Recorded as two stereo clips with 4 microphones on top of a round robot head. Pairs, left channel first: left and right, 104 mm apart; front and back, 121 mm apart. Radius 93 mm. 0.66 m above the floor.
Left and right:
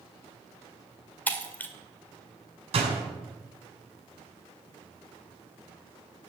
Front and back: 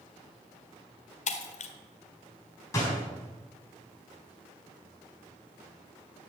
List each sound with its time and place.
1.3 s breaking glass: 15° left, 1.7 m
2.7 s a door slam: 70° right, 5.5 m